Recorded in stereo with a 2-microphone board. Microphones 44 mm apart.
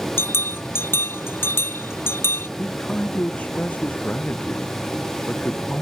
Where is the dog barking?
No dog barking in this recording.